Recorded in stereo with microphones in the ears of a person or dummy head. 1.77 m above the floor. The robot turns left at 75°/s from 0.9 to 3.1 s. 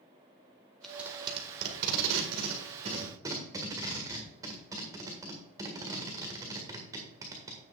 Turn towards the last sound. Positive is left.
turn(degrees=-15)  # may be behind; listen again after turning